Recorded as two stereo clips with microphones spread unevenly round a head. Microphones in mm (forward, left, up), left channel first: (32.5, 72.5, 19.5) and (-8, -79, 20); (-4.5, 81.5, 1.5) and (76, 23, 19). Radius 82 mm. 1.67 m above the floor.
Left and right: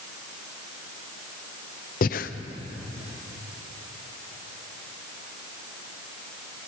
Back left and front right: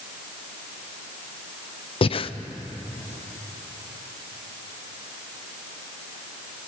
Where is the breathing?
115° left, 0.7 m.